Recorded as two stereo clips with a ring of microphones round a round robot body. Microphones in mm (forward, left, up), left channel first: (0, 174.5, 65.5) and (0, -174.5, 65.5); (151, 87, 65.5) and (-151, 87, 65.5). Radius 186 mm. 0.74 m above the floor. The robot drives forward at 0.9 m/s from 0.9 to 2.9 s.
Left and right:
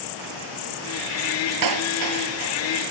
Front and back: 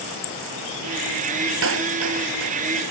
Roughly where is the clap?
Behind right.